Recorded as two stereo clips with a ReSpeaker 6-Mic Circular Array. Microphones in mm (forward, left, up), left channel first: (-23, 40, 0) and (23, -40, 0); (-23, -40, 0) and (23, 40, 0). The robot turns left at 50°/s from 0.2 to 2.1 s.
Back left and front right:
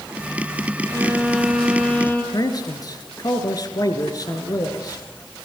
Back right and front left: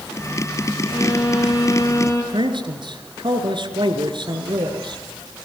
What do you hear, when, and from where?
0.8 s a violin: 110° right, 4.5 m; by 2.2 s 175° right, 4.5 m
2.3 s a man speaking: 80° left, 3 m